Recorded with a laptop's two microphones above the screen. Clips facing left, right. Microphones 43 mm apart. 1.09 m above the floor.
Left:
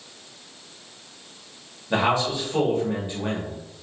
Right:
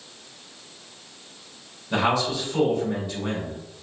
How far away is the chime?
No chime in this recording.